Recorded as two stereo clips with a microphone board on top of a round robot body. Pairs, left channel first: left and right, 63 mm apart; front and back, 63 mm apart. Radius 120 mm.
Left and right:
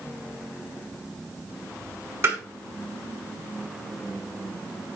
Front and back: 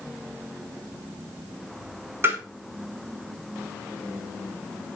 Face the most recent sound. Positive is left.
turn(degrees=-135)